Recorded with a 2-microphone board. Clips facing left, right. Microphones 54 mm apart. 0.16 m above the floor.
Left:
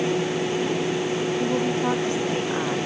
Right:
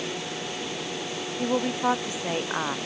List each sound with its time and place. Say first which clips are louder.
1.4 s a woman speaking: right 2 dB; 20° right (ahead or behind)